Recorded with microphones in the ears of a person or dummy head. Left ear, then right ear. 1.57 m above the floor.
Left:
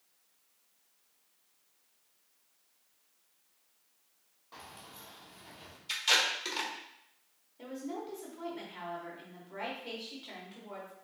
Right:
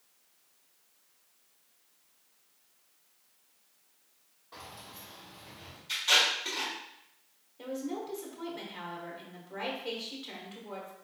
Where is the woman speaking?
Centre (ahead or behind), 1.2 m.